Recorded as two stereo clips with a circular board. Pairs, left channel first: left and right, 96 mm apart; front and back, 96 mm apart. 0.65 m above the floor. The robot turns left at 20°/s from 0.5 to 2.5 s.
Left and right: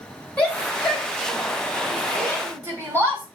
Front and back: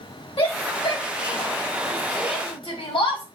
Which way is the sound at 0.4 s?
15° left.